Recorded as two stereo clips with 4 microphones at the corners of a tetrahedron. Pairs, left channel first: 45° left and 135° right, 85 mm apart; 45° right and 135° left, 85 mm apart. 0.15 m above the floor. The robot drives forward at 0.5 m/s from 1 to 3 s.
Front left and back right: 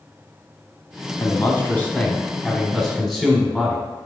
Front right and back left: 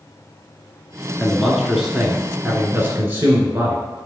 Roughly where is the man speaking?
Ahead left.